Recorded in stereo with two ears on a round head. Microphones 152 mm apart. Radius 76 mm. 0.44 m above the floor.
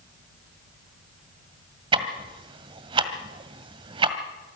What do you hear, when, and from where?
1.9 s ticking: 30° right (ahead or behind), 1.7 m